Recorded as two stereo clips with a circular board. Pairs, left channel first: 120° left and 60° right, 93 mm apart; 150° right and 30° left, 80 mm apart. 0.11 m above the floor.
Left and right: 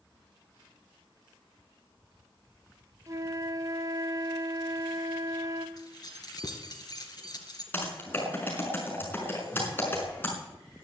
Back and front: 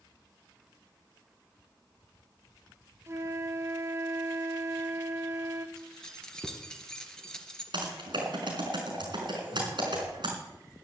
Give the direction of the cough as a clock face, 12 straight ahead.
No cough in this recording.